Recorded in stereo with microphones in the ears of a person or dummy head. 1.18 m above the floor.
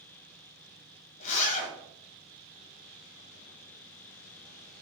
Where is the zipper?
40° left (ahead or behind), 0.8 m.